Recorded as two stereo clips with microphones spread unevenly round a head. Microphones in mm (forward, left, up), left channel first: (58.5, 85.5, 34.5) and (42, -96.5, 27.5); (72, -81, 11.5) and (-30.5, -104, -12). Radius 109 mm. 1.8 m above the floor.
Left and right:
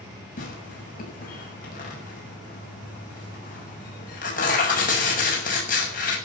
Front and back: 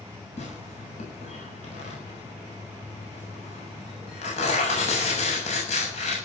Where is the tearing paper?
40° left, 7 m.